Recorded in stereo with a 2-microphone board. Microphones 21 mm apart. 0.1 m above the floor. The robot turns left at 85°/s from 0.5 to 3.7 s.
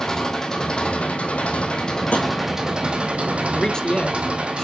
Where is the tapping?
80° left, 1.9 m; by 2.3 s 75° left (ahead or behind), 1.9 m.